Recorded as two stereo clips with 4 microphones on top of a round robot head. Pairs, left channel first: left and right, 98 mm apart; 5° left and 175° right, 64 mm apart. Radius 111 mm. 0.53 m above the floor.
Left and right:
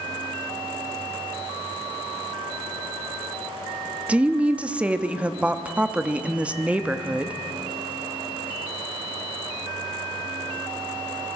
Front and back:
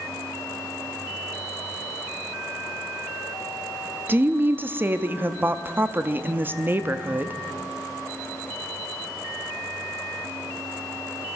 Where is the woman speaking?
160° right, 0.8 m.